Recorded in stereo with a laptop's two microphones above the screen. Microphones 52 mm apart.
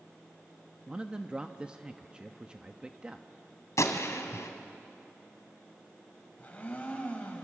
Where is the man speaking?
20° right (ahead or behind), 1.0 m.